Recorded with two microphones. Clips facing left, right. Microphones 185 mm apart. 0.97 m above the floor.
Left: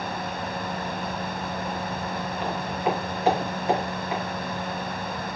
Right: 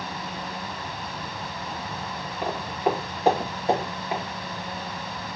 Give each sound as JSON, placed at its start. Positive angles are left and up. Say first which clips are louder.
{"t": 2.4, "sound": "footsteps", "louder": "right 2 dB", "side_deg": -40, "distance_m": 5.0}